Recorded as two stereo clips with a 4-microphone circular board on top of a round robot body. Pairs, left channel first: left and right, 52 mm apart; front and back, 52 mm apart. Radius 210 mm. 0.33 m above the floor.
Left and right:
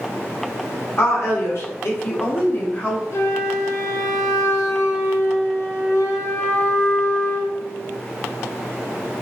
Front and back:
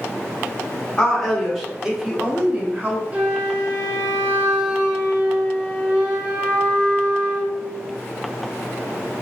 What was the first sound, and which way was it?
A woman speaking, 80° left.